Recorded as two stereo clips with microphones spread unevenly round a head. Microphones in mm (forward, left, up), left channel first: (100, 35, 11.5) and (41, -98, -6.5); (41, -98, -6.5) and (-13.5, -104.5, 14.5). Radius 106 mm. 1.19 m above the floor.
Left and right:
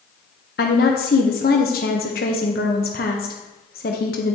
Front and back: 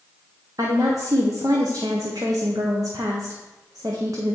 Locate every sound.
0.6 s a woman speaking: 115° left, 0.8 m